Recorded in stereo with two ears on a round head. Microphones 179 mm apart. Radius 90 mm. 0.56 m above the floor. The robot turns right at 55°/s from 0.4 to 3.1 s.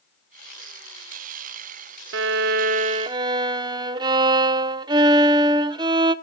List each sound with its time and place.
2.1 s a violin: 75° right, 0.6 m; by 6.1 s 25° right, 0.6 m